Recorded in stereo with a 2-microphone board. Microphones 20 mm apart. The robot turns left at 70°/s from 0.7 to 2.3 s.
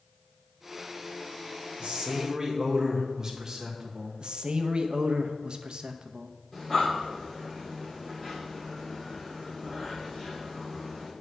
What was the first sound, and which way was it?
A man speaking, 110° right.